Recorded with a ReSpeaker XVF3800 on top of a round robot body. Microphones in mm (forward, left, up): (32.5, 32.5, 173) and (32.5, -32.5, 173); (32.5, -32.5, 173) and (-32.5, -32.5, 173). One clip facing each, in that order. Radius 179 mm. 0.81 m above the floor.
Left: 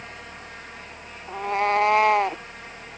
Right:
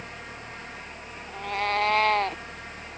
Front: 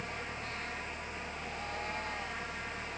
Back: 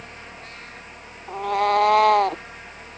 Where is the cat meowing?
155° left; by 2.4 s 170° left.